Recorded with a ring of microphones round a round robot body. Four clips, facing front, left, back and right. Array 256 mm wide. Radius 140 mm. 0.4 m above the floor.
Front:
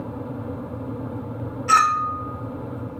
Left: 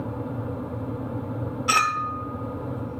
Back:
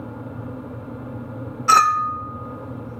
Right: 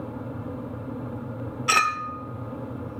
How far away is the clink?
About 0.7 m.